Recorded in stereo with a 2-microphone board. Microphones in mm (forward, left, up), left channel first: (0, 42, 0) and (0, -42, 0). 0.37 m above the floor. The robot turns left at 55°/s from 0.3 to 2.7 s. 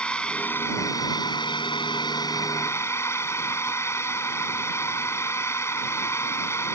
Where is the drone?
165° left; by 6.8 s 35° left.